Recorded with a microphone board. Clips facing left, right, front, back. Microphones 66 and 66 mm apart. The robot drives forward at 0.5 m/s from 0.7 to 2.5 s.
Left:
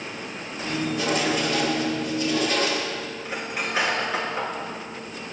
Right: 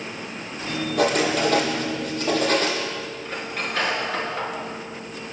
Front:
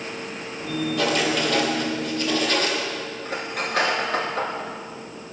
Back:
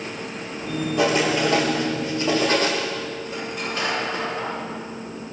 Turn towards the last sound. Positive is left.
turn(degrees=10)